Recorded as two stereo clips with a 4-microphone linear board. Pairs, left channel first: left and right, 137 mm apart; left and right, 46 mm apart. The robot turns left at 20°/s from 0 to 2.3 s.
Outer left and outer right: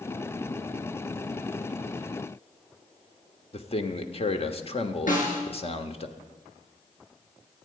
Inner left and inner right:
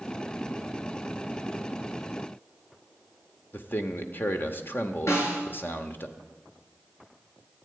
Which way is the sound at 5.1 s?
80° left.